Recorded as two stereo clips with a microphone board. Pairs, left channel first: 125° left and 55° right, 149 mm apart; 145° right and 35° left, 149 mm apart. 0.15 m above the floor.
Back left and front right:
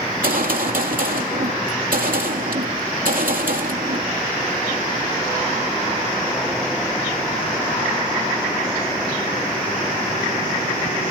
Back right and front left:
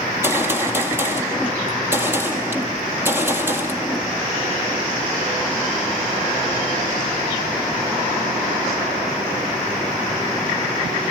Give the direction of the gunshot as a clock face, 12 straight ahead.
1 o'clock.